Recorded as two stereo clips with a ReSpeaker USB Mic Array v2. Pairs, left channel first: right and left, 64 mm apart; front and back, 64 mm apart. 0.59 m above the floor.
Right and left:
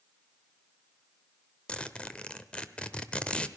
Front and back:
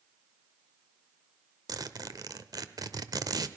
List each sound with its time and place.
1.7 s a zipper: 165° right, 0.9 m